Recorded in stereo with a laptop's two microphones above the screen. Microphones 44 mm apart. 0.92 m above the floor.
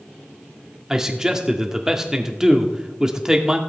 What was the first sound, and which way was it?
A man speaking, 10° right (ahead or behind).